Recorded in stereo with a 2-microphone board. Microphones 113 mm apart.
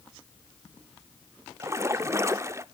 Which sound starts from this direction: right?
A splash, at 1.6 s.